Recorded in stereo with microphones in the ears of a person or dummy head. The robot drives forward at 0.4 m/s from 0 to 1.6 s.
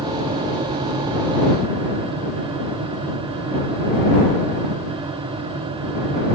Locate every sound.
Only background noise.